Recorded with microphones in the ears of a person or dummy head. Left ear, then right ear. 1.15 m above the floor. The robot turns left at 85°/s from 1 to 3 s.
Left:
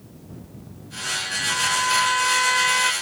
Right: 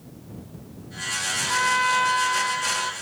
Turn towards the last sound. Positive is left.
turn(degrees=100)